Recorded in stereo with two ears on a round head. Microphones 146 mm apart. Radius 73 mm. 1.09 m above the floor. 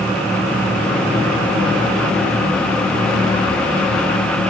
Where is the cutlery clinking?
I don't hear cutlery clinking.